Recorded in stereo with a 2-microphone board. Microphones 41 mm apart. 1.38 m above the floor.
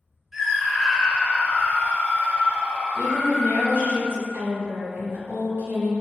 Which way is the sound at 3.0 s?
70° right (ahead or behind).